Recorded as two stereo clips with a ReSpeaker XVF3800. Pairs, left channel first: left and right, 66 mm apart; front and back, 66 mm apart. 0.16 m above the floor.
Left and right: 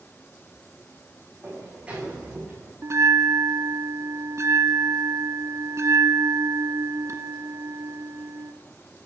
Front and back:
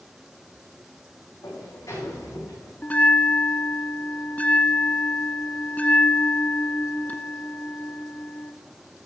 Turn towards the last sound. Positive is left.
turn(degrees=-65)